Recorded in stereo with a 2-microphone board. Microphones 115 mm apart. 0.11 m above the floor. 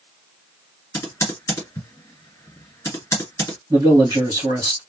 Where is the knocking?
No knocking in this recording.